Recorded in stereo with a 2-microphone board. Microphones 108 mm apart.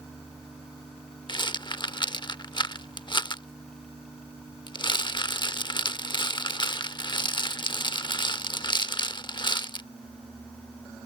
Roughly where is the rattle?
Left.